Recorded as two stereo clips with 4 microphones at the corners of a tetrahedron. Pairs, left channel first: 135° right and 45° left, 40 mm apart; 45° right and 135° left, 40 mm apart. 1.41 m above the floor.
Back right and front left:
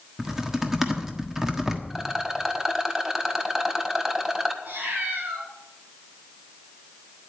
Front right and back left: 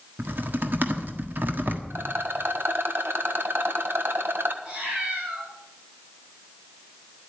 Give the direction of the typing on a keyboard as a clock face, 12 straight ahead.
8 o'clock.